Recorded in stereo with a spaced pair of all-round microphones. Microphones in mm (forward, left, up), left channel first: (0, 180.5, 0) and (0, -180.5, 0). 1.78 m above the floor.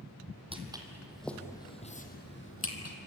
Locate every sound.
0.5 s footsteps: 15° right (ahead or behind), 2.5 m; by 3.0 s 40° left (ahead or behind), 2.5 m